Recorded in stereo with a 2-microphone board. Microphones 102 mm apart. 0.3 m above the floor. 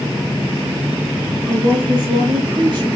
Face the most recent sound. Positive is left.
turn(degrees=-50)  # may be behind; listen again after turning